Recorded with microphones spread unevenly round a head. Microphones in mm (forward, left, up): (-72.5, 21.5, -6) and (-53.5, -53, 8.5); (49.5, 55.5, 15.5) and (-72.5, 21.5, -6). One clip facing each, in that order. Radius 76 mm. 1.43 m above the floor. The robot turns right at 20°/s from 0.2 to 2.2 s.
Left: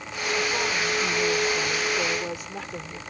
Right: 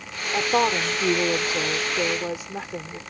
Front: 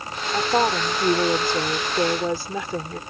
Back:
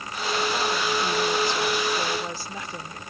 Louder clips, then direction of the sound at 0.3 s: Right 6 dB, front 6 dB; 35° right.